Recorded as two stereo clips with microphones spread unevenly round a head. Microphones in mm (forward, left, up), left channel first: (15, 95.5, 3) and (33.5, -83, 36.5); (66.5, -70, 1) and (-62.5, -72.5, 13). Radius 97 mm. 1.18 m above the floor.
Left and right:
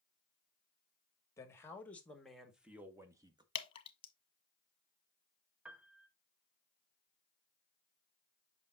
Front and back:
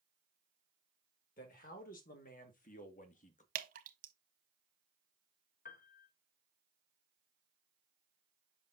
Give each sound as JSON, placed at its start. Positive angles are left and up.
{"t": 1.4, "sound": "a man speaking", "azimuth_deg": 25, "distance_m": 1.8}
{"t": 3.5, "sound": "dripping", "azimuth_deg": 155, "distance_m": 0.8}
{"t": 5.7, "sound": "a piano", "azimuth_deg": -5, "distance_m": 0.8}